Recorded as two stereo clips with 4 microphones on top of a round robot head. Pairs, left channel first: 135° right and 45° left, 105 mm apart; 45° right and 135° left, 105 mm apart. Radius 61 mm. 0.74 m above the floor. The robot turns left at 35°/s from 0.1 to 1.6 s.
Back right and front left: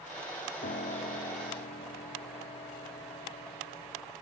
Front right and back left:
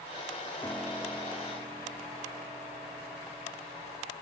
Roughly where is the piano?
Behind right.